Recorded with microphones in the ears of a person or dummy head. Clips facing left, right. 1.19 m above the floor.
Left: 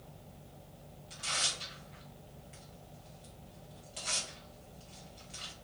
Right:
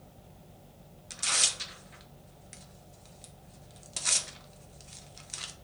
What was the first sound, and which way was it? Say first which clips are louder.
Tearing paper: right 2 dB; 75° right (ahead or behind).